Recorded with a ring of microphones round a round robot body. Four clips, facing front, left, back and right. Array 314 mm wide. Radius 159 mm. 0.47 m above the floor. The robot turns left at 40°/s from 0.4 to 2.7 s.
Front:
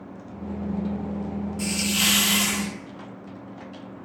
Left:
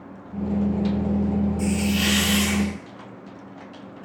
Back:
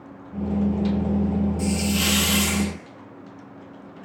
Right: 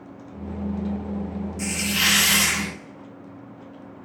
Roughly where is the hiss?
Ahead right.